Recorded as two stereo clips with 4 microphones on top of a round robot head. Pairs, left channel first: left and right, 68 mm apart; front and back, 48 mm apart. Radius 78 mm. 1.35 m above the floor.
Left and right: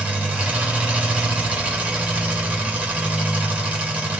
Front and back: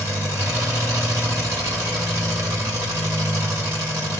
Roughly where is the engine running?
Behind.